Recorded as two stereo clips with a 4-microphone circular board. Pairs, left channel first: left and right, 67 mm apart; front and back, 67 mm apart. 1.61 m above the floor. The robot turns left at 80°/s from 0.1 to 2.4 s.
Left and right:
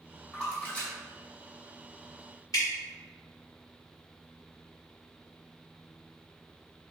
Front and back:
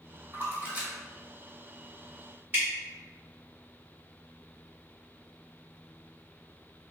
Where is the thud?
No thud in this recording.